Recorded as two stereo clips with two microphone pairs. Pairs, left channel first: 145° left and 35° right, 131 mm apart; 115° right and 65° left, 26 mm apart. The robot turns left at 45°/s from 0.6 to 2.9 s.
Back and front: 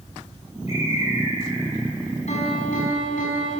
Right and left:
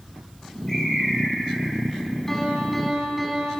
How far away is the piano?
About 6.5 m.